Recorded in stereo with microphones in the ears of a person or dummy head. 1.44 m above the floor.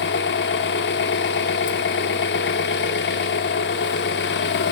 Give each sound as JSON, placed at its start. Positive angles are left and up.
{"t": 0.0, "sound": "an engine running", "side_deg": 55, "distance_m": 1.4}